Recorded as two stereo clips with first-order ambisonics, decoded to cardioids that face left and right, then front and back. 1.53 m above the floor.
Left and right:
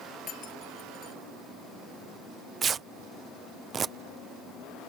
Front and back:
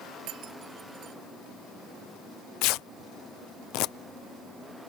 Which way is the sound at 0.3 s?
140° left.